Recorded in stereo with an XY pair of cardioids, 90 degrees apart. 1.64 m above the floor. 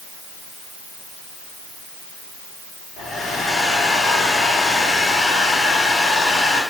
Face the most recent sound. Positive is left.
turn(degrees=70)